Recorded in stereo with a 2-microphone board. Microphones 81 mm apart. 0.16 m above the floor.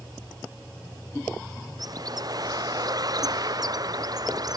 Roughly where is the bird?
Right.